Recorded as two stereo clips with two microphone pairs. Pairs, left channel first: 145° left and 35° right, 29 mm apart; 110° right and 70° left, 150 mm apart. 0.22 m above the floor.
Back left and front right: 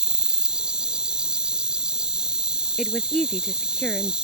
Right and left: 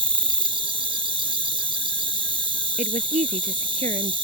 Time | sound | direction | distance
0.0 | an insect | 20° left | ?
2.8 | a woman speaking | 90° left | ?